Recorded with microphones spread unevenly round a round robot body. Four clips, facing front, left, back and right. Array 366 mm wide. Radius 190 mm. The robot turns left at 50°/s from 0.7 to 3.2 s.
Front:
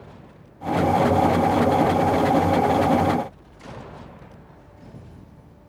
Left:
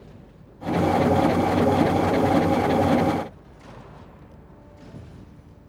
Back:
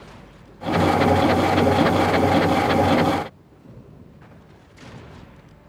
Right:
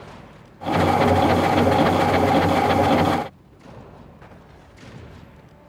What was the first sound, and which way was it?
Only background noise.